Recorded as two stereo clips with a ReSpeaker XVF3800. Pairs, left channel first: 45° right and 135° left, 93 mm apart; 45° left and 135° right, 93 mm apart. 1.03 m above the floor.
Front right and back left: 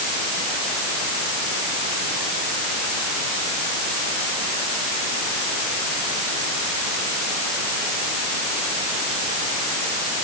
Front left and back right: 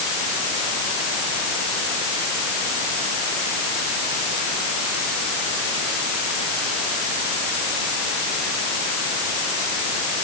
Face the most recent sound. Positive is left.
No sound to turn to.